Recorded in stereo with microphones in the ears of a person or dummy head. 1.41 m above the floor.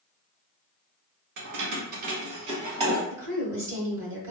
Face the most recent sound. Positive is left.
turn(degrees=-15)  # may be behind; listen again after turning